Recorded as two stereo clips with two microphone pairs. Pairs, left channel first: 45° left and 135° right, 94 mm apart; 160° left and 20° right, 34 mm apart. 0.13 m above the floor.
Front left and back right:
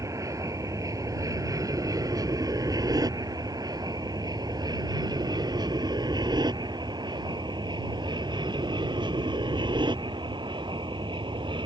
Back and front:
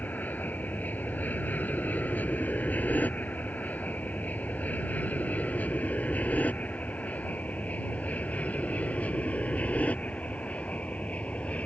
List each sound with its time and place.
0.0 s an aircraft: 175° left; by 11.7 s 155° right